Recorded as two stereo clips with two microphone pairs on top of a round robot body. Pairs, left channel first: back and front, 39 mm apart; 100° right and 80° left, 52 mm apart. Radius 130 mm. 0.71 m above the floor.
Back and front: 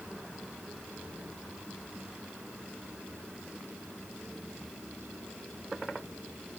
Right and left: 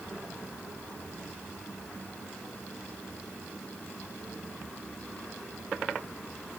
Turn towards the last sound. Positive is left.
No sound to turn to.